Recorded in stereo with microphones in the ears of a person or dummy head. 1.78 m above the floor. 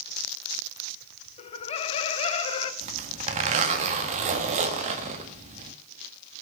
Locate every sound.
1.4 s laughter: 30° left (ahead or behind), 1.1 m
2.8 s a zipper: 40° right (ahead or behind), 1.6 m